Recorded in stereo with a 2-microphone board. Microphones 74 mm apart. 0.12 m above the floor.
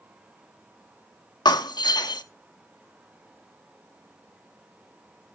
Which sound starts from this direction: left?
Breaking glass, at 1.4 s.